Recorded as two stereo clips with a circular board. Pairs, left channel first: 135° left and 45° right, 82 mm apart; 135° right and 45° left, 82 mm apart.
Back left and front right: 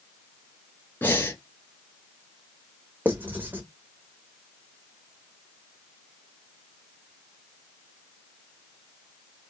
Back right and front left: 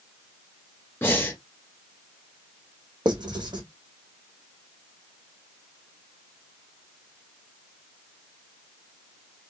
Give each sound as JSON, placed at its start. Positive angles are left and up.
{"t": 1.0, "sound": "breathing", "azimuth_deg": 180, "distance_m": 1.8}
{"t": 3.0, "sound": "writing", "azimuth_deg": 25, "distance_m": 1.5}